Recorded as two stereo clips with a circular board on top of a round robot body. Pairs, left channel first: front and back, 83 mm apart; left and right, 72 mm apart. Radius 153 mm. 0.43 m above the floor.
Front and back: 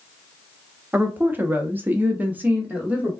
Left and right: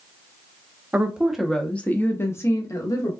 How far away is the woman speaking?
About 1.0 m.